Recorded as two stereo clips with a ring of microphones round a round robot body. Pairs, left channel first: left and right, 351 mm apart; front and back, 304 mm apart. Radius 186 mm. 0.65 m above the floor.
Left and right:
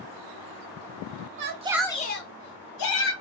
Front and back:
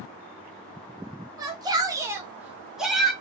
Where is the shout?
110° right, 0.6 m; by 3.1 s 90° left, 1.0 m.